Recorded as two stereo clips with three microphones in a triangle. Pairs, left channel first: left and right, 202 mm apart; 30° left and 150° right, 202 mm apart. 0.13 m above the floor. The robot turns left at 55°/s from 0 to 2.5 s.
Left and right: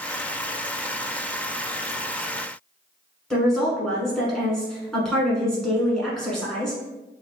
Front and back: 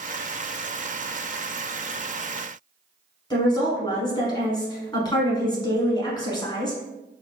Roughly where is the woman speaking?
Ahead.